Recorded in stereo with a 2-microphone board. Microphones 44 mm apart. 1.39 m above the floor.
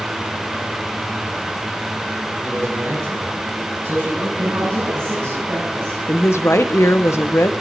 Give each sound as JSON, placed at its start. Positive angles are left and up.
{"t": 2.4, "sound": "a man speaking", "side_deg": -50, "distance_m": 9.0}
{"t": 4.4, "sound": "a woman speaking", "side_deg": -60, "distance_m": 9.5}
{"t": 6.1, "sound": "a woman speaking", "side_deg": 85, "distance_m": 0.9}